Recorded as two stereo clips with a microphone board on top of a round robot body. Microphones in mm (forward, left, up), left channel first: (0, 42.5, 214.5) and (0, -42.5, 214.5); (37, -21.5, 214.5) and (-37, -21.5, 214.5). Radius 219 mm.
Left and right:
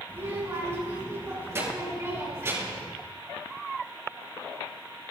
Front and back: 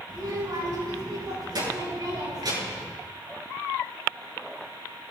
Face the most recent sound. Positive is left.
turn(degrees=-150)